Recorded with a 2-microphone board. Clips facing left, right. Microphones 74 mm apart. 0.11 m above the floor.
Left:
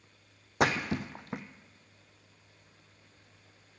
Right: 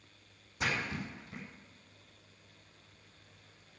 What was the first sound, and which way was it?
A splash, 75° left (ahead or behind).